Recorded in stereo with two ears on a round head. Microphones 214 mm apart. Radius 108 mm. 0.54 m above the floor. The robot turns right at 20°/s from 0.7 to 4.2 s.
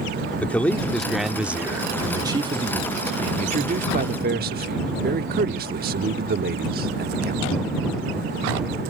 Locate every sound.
0.4 s a man speaking: 170° left; by 7.4 s 120° right